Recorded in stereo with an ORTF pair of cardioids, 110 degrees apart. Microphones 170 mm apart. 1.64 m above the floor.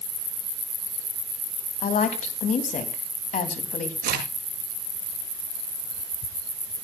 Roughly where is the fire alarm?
No fire alarm in this recording.